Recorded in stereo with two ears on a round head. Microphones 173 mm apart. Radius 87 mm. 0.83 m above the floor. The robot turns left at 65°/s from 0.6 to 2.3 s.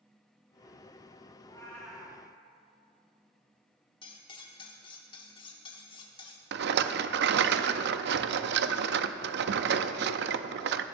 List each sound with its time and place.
1.4 s a cat meowing: 30° left, 2 m; by 2.2 s 20° right, 2 m
4.0 s cutlery clinking: 25° left (ahead or behind), 1.2 m
6.5 s a rattle: 60° right (ahead or behind), 0.5 m